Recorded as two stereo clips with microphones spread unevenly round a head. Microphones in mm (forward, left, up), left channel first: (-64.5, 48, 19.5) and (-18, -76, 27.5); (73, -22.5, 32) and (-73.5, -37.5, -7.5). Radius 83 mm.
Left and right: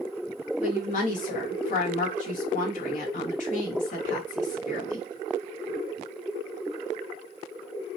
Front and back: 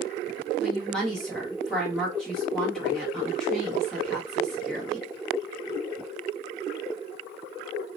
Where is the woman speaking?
100° left, 1.0 m.